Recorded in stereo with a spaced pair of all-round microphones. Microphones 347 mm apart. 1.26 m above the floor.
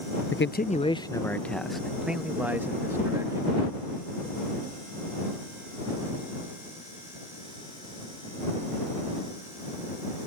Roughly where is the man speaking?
Left.